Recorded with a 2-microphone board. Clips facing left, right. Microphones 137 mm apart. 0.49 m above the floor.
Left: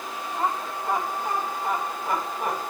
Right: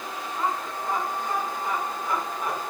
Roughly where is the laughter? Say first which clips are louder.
Left 1 dB; left.